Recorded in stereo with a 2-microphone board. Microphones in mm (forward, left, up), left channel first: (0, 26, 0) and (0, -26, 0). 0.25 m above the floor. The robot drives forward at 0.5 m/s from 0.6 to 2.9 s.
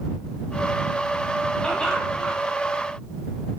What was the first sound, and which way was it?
Laughter, 15° left (ahead or behind).